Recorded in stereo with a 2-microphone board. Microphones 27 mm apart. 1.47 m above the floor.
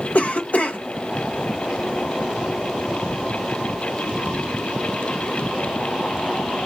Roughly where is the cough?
Left.